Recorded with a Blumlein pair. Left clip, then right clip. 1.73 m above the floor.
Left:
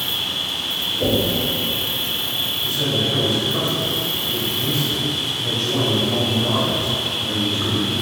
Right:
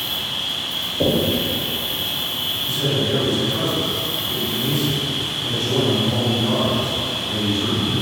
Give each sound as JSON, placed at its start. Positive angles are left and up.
{"t": 0.0, "sound": "an insect", "azimuth_deg": 60, "distance_m": 0.7}
{"t": 1.0, "sound": "knocking", "azimuth_deg": -35, "distance_m": 1.0}
{"t": 2.6, "sound": "a man speaking", "azimuth_deg": 45, "distance_m": 1.9}